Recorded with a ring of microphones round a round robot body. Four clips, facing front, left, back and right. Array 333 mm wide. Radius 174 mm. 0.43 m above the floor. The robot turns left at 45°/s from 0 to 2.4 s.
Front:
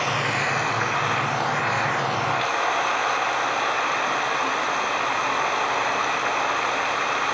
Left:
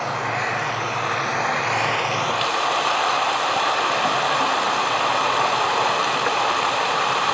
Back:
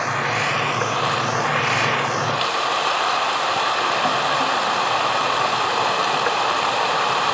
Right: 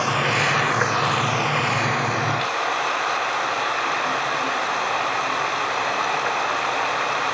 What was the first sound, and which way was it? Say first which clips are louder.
Running water: right 2 dB, back 2 dB; 100° right.